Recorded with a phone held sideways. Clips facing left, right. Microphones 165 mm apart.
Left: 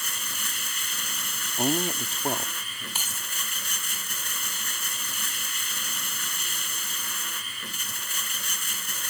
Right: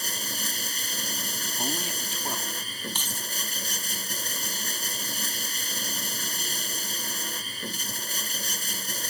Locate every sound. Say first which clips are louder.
0.0 s running water: right 4 dB; 35° right (ahead or behind)
1.6 s a man speaking: left 8 dB; 35° left (ahead or behind)
3.0 s keys jangling: right 3 dB; 10° left (ahead or behind)